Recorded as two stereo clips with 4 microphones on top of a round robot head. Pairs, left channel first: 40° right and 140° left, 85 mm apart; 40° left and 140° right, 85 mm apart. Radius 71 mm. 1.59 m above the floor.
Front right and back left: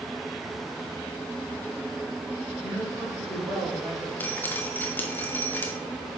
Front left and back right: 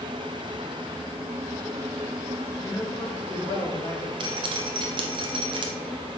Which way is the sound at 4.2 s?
105° right.